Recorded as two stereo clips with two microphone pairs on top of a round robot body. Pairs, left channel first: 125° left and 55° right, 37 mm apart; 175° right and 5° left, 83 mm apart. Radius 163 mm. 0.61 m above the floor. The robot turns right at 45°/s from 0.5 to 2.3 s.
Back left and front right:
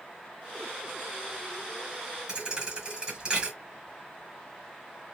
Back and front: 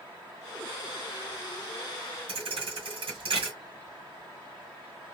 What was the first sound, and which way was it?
A thud, 10° left.